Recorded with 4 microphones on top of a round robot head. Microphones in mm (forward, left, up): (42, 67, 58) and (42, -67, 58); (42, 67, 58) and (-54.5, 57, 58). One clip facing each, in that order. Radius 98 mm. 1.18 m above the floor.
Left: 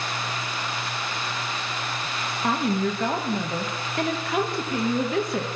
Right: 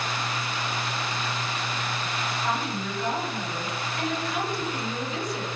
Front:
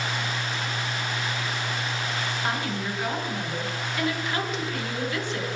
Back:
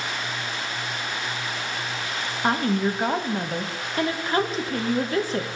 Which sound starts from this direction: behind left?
A woman speaking, at 2.4 s.